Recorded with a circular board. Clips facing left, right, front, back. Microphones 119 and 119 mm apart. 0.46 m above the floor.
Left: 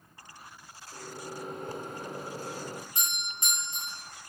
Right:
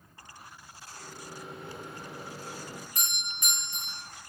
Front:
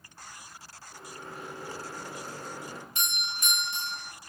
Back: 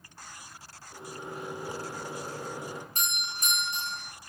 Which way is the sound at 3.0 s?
150° left.